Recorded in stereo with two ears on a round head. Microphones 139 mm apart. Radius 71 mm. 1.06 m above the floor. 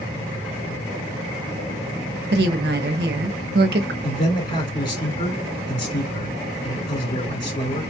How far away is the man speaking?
About 2.5 m.